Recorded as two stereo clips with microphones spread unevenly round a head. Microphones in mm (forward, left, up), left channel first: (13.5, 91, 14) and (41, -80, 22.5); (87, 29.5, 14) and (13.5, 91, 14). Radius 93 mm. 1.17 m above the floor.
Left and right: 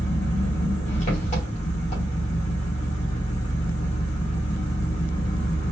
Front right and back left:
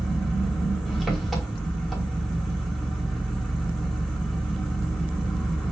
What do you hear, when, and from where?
0.0 s an engine running: 50° left, 2.5 m